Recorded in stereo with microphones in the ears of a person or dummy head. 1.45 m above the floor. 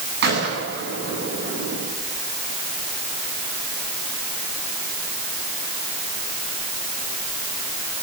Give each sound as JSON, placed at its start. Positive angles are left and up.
{"t": 0.2, "sound": "a gunshot", "side_deg": -60, "distance_m": 9.0}